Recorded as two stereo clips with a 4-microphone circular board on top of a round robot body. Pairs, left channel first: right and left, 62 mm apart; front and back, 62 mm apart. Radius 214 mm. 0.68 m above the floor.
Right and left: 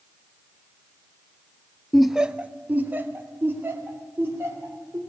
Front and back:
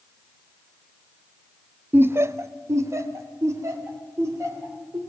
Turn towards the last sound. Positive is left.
turn(degrees=140)